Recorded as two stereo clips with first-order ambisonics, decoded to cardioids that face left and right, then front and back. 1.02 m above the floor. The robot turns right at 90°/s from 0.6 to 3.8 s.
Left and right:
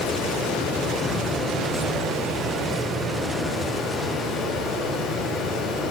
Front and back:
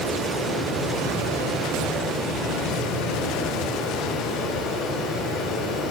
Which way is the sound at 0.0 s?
115° left.